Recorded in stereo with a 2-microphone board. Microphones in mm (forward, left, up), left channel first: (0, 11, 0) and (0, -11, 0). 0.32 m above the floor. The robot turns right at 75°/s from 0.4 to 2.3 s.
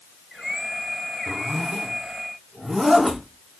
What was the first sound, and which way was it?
A zipper, 60° right (ahead or behind).